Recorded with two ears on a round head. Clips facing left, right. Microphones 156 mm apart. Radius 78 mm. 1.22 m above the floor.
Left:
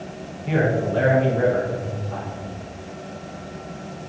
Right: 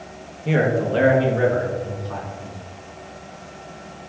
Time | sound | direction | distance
0.5 | a man speaking | 50° right (ahead or behind) | 1.4 m